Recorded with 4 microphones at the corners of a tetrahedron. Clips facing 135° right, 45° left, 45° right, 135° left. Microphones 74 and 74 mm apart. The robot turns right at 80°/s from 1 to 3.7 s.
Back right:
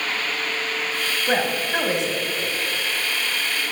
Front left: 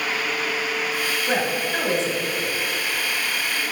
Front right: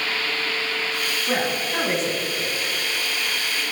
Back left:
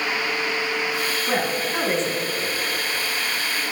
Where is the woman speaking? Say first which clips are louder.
Back right 3 dB, front right 1 dB; 175° right, 1.0 m; by 2.5 s 75° right, 1.0 m.